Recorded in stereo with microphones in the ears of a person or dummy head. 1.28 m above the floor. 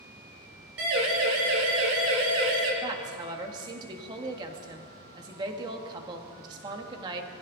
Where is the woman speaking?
25° right (ahead or behind), 1.7 m.